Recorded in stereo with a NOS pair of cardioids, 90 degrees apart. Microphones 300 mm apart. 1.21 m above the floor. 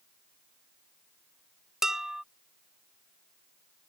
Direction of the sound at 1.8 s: Straight ahead.